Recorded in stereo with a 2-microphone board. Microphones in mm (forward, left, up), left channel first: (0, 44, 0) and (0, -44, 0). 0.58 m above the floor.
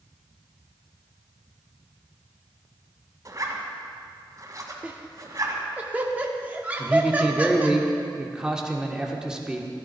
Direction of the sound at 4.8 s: 20° right (ahead or behind).